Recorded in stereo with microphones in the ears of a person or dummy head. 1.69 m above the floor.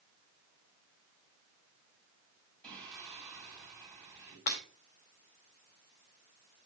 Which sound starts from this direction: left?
Breaking glass, at 4.5 s.